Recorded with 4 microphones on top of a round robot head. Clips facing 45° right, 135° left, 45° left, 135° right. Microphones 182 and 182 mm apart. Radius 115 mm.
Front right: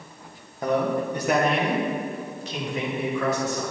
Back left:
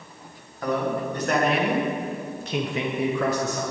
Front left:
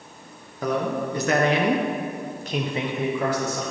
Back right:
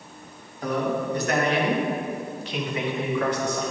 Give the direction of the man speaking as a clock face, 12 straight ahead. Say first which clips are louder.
Front right 2 dB, front left 1 dB; 11 o'clock.